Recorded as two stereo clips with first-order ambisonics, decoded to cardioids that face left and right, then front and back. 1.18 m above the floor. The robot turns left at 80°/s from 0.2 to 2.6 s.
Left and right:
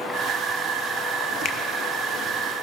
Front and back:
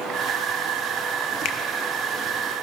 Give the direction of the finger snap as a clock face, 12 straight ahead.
11 o'clock.